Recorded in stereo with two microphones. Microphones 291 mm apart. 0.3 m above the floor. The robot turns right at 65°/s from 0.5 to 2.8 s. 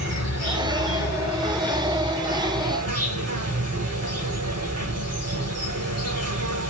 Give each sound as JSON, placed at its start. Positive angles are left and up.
{"t": 0.0, "sound": "an insect", "azimuth_deg": 100, "distance_m": 1.6}